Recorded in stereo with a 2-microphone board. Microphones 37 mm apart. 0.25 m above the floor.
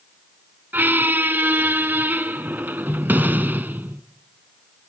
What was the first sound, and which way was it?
A squeak, 60° right (ahead or behind).